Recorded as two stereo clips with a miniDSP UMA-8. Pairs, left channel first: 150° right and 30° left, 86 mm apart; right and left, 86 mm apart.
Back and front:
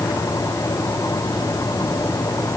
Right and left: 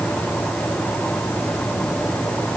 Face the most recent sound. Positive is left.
No sound to turn to.